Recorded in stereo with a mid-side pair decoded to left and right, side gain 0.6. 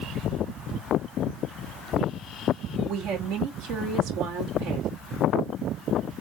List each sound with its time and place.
2.9 s a woman speaking: 70° right, 2 m